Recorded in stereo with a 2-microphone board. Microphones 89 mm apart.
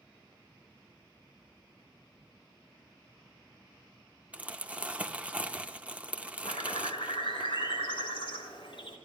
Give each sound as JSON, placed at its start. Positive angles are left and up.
{"t": 4.3, "sound": "crumpling", "side_deg": -15, "distance_m": 0.7}
{"t": 6.4, "sound": "a bird", "side_deg": 75, "distance_m": 3.0}